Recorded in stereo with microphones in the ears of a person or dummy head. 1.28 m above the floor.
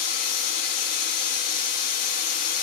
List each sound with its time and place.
0.0 s a machine running: 35° left (ahead or behind), 0.8 m